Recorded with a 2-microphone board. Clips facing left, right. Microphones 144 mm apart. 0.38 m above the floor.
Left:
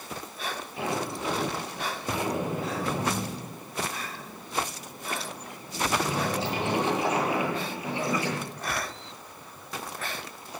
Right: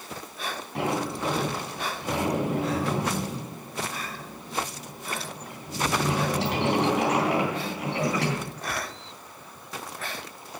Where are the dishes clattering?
I don't hear dishes clattering.